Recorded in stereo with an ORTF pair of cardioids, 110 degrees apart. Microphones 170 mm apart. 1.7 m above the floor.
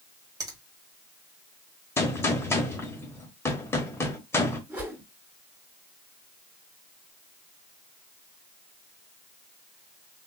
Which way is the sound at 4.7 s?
15° right.